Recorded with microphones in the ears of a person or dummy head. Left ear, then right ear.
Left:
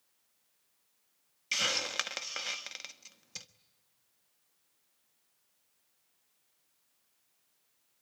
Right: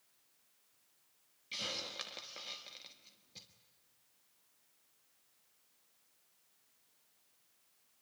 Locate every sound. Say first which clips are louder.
1.5 s a hiss: left 10 dB; 55° left (ahead or behind), 1.2 m